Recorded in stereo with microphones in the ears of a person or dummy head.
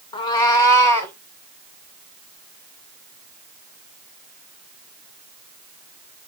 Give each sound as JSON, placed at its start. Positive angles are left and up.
{"t": 0.1, "sound": "a cat meowing", "side_deg": 30, "distance_m": 0.8}